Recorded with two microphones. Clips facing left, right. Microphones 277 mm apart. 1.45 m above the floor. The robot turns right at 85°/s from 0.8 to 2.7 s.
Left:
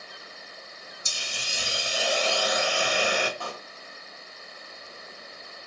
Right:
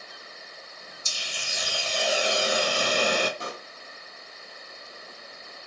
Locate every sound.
1.1 s a hiss: 95° left, 0.6 m; by 3.3 s 125° right, 0.6 m
3.4 s a pop: 20° right (ahead or behind), 0.6 m